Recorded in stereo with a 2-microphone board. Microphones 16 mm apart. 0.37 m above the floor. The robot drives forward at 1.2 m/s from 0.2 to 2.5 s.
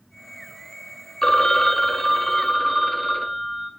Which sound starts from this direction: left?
A phone ringing, at 1.2 s.